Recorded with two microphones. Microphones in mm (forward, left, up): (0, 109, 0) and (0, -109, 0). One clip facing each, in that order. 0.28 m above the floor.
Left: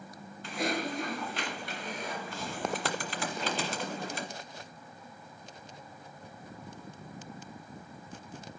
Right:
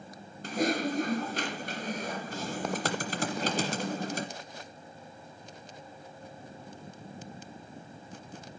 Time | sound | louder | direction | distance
0.4 | typing on a keyboard | right 4 dB | 45° right (ahead or behind) | 1.5 m